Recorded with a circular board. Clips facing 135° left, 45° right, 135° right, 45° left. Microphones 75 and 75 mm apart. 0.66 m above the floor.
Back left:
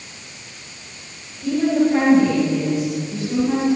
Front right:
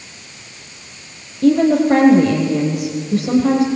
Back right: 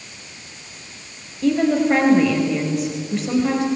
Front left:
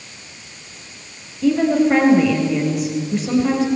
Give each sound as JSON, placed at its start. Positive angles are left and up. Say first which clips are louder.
{"t": 1.4, "sound": "a woman speaking", "louder": "front right 5 dB, front left 2 dB", "azimuth_deg": -45, "distance_m": 3.5}